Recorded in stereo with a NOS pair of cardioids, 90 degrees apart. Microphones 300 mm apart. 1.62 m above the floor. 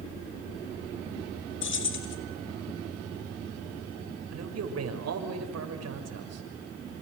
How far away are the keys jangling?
About 4 m.